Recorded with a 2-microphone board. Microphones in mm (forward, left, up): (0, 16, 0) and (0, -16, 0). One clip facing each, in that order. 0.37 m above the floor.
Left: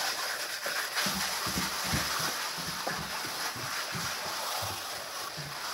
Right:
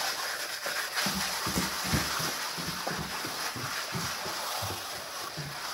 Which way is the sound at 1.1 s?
30° right (ahead or behind).